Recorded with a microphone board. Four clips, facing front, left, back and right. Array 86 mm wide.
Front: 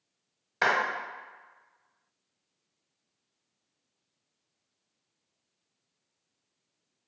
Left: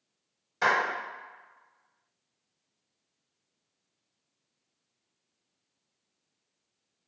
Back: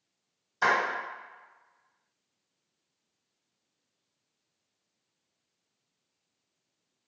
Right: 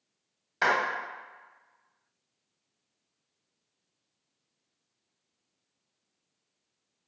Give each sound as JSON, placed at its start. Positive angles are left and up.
{"t": 0.6, "sound": "a clap", "azimuth_deg": -20, "distance_m": 1.3}